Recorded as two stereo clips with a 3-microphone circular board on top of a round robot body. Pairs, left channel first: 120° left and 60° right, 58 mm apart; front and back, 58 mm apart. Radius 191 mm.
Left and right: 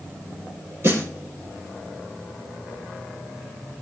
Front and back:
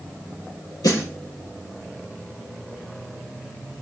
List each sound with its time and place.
0.8 s a snare drum: 10° right, 8 m